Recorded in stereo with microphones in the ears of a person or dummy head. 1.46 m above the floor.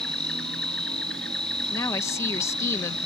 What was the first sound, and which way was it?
An insect, 5° left (ahead or behind).